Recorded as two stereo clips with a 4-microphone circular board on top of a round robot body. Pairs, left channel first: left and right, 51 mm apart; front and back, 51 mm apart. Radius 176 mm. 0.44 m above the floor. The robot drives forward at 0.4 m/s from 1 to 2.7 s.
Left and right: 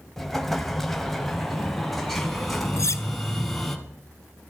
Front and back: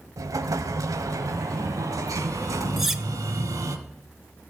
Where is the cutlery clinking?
95° left, 1.2 m.